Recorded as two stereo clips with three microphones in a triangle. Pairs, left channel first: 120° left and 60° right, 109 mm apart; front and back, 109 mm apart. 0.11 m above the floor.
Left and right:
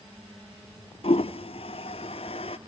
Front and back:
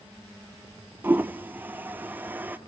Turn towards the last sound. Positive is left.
turn(degrees=110)